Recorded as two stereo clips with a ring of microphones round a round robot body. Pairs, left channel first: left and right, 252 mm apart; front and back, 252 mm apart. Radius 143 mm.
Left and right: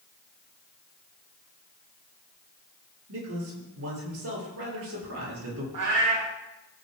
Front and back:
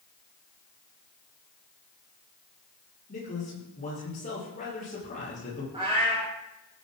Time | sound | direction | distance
3.1 | a man speaking | 65° right | 9 m
5.7 | a cat meowing | 110° right | 7 m